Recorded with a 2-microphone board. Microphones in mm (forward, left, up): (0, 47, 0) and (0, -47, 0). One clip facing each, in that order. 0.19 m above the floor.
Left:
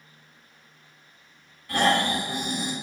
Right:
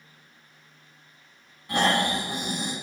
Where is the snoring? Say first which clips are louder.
Left 1 dB; 20° right (ahead or behind), 1.5 m.